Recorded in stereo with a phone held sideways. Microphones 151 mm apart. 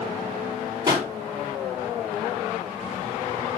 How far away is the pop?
About 5 m.